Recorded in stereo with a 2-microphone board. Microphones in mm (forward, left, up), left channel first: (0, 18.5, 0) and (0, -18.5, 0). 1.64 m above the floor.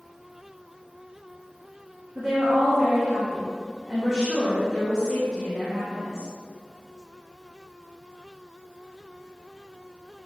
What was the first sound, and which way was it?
A woman speaking, 5° left (ahead or behind).